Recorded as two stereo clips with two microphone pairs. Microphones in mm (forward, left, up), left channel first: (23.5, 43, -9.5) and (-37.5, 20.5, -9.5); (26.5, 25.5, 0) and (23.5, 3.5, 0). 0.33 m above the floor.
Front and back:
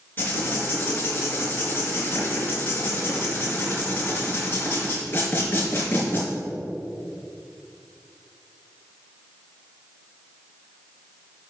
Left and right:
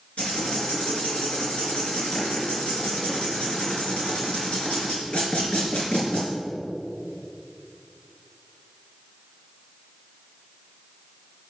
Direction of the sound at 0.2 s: 80° left.